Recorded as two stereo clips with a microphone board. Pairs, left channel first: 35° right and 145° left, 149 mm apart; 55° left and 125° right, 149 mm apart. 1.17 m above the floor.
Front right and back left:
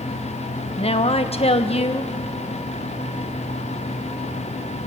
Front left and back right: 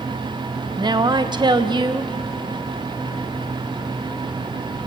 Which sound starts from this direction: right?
A woman speaking, at 0.8 s.